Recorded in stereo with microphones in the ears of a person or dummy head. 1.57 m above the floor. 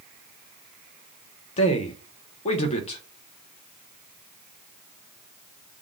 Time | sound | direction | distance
1.6 | a man speaking | 35° left (ahead or behind) | 0.7 m